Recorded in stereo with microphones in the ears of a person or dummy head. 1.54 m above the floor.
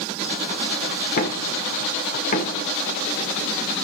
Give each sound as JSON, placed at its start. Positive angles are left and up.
{"t": 1.2, "sound": "knocking", "side_deg": 40, "distance_m": 1.1}